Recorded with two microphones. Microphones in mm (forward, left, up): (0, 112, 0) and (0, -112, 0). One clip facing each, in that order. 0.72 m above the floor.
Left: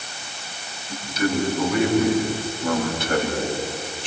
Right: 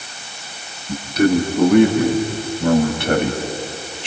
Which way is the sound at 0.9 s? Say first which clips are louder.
Right 8 dB; 60° right (ahead or behind).